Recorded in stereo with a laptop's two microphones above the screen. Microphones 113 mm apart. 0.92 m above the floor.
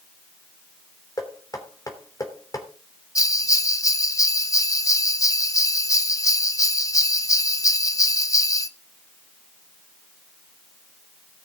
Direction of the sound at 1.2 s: 30° left (ahead or behind).